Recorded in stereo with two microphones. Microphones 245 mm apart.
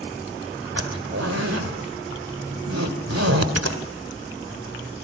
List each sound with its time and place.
0.8 s a zipper: 80° right, 2.5 m